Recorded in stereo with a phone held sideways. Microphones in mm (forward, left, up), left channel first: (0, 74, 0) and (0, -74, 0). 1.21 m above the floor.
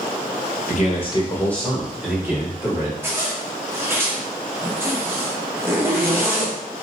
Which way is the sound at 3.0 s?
15° right (ahead or behind).